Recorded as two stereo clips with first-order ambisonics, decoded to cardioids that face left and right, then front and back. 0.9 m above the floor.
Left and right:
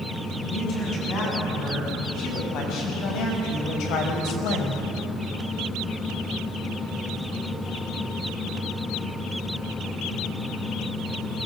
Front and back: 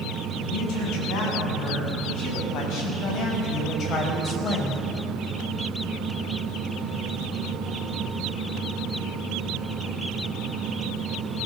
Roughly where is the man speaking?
Ahead left.